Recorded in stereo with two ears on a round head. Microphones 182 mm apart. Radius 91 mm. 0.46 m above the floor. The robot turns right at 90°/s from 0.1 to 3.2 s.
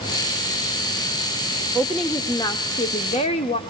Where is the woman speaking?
25° right, 0.8 m; by 3.6 s 110° left, 0.8 m.